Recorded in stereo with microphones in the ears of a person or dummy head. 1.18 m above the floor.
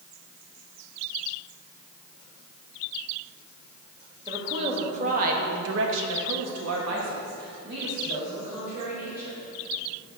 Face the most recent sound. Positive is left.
turn(degrees=-40)  # may be behind; listen again after turning